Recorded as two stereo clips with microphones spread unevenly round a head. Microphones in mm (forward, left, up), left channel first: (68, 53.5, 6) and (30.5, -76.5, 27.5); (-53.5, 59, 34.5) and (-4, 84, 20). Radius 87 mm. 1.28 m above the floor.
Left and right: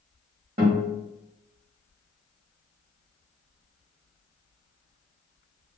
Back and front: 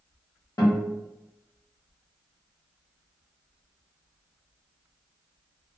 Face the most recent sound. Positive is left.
turn(degrees=-150)